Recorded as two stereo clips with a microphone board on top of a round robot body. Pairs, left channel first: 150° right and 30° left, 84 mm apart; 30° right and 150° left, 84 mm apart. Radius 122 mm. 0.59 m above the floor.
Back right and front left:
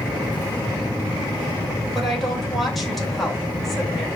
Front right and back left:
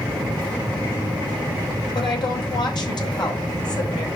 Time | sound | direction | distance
1.9 | a woman speaking | 60° right | 3 m